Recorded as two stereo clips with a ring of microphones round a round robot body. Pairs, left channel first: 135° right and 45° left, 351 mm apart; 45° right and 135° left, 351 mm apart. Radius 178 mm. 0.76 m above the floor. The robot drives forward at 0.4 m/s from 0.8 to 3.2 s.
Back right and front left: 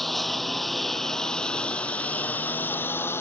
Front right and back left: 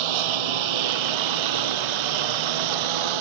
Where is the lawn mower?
135° left; by 3.2 s 140° left.